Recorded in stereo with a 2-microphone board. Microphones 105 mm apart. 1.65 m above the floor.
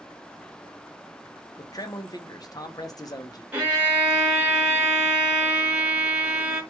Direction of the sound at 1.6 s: 35° left (ahead or behind).